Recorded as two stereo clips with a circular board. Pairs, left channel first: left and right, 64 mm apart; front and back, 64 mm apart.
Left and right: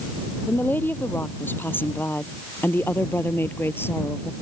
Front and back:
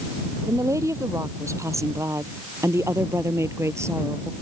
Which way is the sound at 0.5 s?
150° left.